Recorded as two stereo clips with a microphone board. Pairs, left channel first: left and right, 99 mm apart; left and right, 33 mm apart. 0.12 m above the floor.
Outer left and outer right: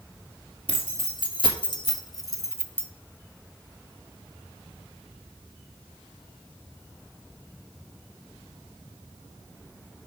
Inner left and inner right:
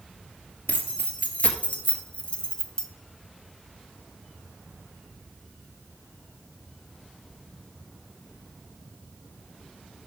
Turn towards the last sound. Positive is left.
turn(degrees=15)  # may be behind; listen again after turning